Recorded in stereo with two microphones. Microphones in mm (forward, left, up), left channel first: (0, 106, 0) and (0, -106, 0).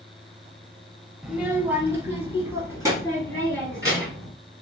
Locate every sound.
1.2 s a child speaking: 5° right (ahead or behind), 0.6 m; by 4.3 s 15° right (ahead or behind), 2.5 m